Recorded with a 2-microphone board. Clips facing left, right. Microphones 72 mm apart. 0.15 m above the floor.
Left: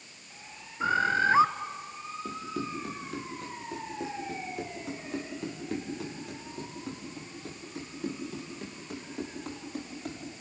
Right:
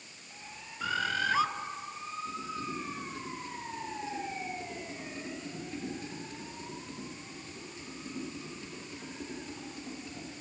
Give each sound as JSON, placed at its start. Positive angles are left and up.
{"t": 0.8, "sound": "a bird", "side_deg": 30, "distance_m": 1.0}
{"t": 2.2, "sound": "running footsteps", "side_deg": 85, "distance_m": 7.0}